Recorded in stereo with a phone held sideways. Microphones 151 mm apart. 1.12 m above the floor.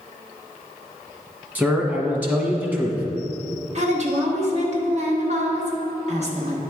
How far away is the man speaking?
About 1.1 m.